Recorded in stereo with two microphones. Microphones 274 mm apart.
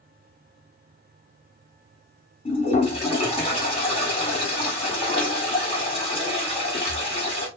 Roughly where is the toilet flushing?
Left.